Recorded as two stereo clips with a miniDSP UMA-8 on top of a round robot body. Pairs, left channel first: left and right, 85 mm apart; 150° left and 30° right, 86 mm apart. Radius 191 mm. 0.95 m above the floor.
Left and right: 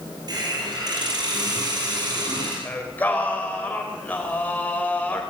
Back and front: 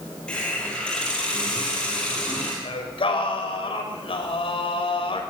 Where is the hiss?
130° right, 5 m.